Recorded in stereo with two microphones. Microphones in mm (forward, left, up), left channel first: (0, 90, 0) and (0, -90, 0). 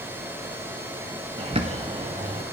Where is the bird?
35° right (ahead or behind), 0.7 m.